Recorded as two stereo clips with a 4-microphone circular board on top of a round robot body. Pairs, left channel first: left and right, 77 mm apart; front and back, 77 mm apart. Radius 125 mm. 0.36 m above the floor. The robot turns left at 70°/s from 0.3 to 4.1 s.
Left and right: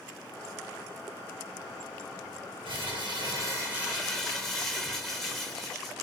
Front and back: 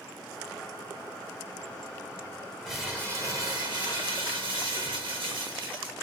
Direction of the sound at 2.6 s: 85° right.